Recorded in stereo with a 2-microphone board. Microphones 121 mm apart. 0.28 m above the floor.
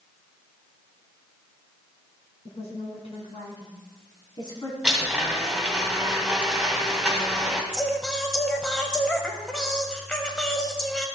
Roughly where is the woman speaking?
Left.